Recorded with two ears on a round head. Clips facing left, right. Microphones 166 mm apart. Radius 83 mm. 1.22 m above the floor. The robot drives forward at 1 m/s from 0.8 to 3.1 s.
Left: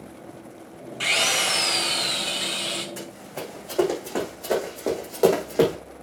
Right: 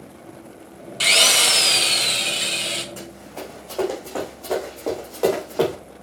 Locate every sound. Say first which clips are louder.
1.0 s a drill: right 4 dB; 50° right (ahead or behind), 1.0 m; by 2.9 s 20° right (ahead or behind), 2 m
3.0 s running footsteps: even; 10° left (ahead or behind), 5.5 m; by 5.8 s 20° left (ahead or behind), 4.5 m